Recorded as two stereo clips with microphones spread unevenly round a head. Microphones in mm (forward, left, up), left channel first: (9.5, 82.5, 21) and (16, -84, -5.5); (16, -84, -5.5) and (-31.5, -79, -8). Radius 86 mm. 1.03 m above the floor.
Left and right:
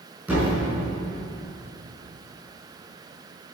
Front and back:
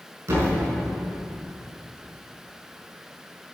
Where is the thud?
170° right, 5 m.